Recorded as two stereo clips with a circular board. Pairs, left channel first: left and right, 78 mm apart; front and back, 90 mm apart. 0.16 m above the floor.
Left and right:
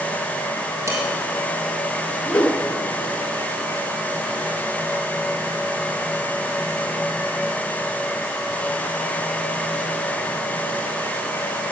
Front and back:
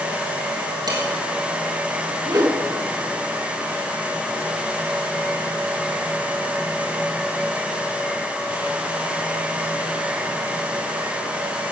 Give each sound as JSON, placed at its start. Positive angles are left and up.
{"t": 0.9, "sound": "dishes clattering", "azimuth_deg": -145, "distance_m": 3.5}
{"t": 2.2, "sound": "a whoosh", "azimuth_deg": 155, "distance_m": 1.2}